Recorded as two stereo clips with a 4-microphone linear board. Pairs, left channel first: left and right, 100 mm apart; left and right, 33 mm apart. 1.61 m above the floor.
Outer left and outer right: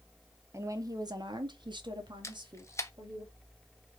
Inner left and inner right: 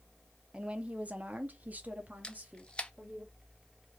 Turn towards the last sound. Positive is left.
turn(degrees=30)  # may be behind; listen again after turning